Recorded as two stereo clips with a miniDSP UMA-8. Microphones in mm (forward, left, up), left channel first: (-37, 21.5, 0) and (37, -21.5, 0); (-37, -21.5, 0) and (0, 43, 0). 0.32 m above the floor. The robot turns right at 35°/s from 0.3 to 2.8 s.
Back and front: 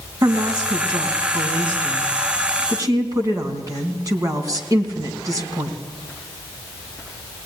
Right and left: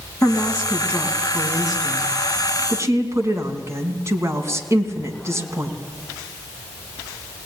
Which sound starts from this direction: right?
A woman speaking, at 0.2 s.